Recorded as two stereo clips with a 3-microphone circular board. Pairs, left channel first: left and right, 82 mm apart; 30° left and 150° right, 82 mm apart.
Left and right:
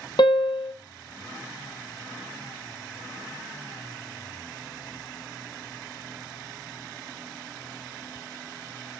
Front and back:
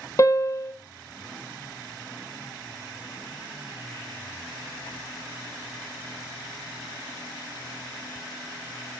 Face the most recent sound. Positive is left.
turn(degrees=80)